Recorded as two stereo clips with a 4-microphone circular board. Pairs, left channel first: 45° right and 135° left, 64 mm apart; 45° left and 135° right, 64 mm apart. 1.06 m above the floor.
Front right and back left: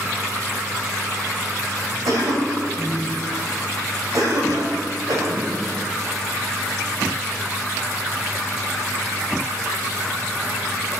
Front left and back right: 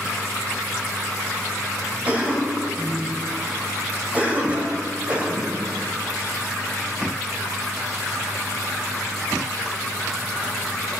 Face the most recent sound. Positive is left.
turn(degrees=155)